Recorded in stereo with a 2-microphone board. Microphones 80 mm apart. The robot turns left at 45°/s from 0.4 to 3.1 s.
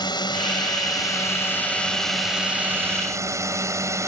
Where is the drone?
80° left; by 4.1 s 40° right.